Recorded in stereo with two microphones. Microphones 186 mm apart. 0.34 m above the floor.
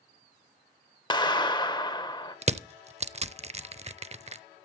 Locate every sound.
1.1 s a clap: 25° left (ahead or behind), 1.0 m
2.4 s crushing: 35° right (ahead or behind), 0.5 m